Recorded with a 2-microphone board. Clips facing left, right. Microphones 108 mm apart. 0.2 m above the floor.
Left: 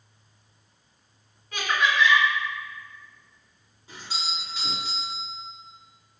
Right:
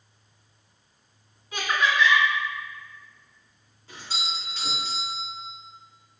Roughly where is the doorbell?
Centre.